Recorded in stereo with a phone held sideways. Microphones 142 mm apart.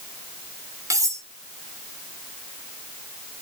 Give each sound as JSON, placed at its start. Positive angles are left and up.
{"t": 0.9, "sound": "cutlery clinking", "side_deg": -25, "distance_m": 2.5}